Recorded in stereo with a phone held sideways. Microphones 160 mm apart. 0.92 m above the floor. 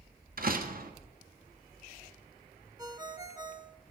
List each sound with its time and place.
0.4 s a door slam: 60° right (ahead or behind), 1.2 m
2.8 s a ringtone: 25° right (ahead or behind), 1.0 m